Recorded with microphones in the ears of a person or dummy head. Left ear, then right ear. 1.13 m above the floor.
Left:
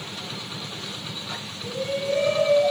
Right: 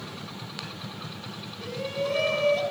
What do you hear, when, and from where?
1.6 s a shout: 40° right (ahead or behind), 8 m